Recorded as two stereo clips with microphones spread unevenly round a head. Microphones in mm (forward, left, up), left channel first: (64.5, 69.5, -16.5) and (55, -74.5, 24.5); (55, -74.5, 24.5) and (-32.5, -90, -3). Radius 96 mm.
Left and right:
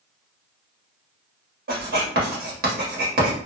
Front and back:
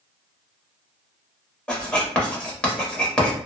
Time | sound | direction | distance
1.7 | writing | 75° right | 1.2 m